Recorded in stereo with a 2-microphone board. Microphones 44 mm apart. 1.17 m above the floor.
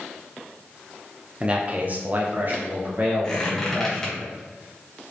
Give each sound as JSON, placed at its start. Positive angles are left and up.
{"t": 1.4, "sound": "a man speaking", "side_deg": -25, "distance_m": 0.6}
{"t": 3.2, "sound": "a squeak", "side_deg": 10, "distance_m": 1.3}